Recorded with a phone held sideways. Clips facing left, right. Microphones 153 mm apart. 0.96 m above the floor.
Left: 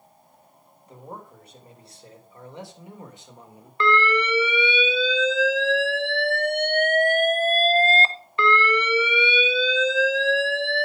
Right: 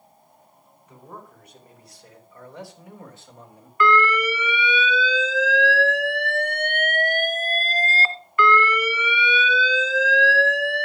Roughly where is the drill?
No drill in this recording.